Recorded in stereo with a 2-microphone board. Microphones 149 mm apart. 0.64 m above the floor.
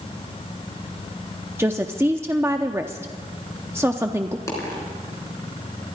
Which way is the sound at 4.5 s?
20° left (ahead or behind).